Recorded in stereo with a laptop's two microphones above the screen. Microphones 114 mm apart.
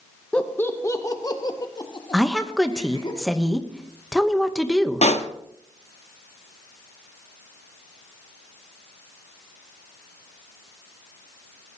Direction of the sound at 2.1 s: Centre (ahead or behind).